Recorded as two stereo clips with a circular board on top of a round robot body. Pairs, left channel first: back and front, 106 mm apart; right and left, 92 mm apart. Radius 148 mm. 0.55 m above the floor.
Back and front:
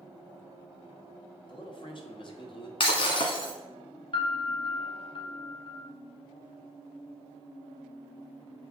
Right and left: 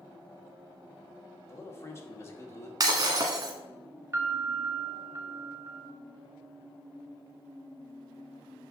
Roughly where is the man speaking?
Behind right.